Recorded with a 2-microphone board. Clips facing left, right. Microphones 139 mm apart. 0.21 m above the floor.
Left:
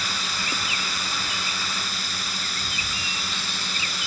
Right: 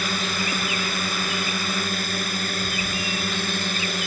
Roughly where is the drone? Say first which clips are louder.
Right 6 dB; right.